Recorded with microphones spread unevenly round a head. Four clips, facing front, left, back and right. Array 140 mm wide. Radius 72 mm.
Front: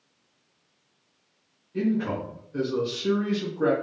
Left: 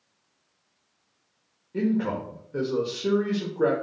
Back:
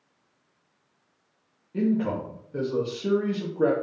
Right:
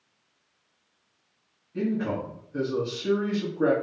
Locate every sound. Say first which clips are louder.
1.7 s a man speaking: left 2 dB, back 1 dB; 135° left, 0.8 m